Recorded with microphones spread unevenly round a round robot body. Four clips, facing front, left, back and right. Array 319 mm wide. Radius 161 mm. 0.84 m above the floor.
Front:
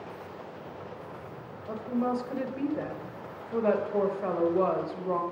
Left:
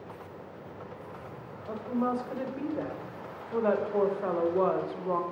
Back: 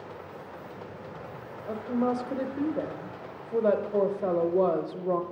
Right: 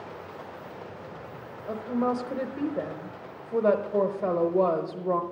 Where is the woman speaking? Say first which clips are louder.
Right 3 dB, back 2 dB; 125° right, 0.9 m.